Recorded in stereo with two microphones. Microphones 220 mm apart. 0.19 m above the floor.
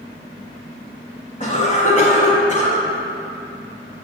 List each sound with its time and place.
1.4 s a cough: 30° left (ahead or behind), 1.3 m